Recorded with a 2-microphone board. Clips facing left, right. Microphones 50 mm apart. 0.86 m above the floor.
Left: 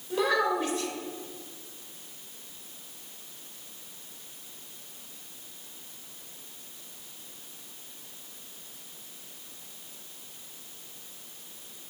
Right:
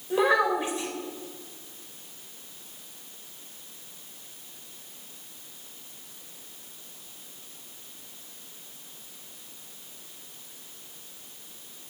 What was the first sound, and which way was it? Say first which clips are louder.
A child speaking: right 3 dB; 20° right (ahead or behind).